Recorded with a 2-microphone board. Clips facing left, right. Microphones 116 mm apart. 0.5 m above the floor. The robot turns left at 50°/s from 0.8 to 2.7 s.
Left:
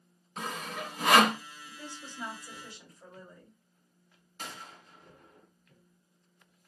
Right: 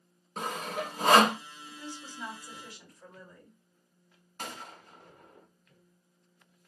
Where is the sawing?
45° right (ahead or behind), 0.5 m; by 1.4 s 20° right (ahead or behind), 0.5 m.